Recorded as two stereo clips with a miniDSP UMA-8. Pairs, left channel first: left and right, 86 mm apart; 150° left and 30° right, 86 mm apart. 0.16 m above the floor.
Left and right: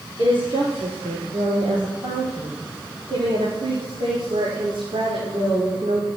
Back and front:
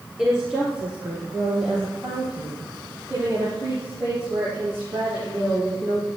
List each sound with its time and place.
0.2 s a woman speaking: 110° right, 2.5 m; by 6.1 s 105° right, 7 m